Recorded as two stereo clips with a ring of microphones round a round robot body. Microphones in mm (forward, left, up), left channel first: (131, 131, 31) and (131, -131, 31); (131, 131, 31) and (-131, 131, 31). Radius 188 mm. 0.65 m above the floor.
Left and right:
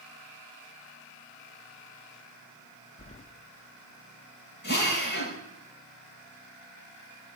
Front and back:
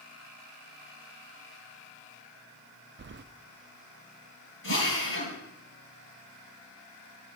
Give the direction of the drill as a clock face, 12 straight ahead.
11 o'clock.